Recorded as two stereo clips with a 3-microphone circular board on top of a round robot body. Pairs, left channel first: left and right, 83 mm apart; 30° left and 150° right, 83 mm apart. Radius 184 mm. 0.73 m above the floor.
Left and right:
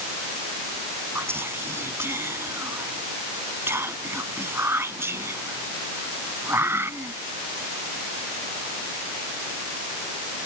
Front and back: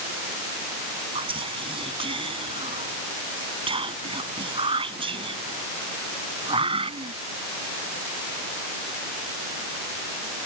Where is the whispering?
155° right.